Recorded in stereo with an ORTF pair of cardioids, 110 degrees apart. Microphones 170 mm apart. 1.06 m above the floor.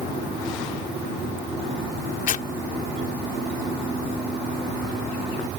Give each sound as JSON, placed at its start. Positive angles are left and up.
{"t": 2.3, "sound": "tearing paper", "azimuth_deg": 50}